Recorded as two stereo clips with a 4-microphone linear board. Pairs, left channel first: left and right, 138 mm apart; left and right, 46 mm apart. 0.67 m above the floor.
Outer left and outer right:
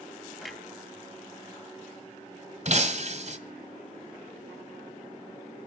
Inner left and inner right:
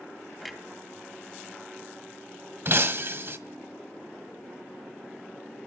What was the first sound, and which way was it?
A clunk, centre (ahead or behind).